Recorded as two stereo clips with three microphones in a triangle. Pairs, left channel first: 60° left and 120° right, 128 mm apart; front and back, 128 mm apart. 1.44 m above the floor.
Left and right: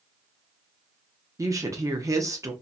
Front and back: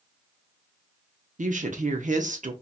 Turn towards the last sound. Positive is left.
turn(degrees=175)